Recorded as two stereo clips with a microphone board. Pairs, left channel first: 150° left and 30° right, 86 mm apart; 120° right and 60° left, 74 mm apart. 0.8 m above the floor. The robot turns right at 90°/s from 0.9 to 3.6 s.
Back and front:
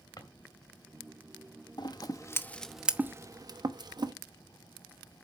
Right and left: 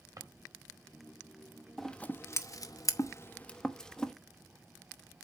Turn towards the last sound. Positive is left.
turn(degrees=-40)